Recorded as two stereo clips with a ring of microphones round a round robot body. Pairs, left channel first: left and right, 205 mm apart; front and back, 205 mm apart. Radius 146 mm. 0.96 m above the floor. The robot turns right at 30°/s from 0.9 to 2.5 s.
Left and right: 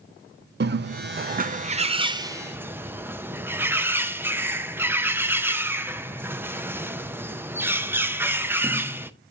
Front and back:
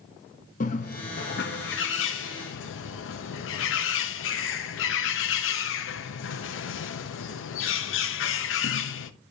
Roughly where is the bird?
Ahead right.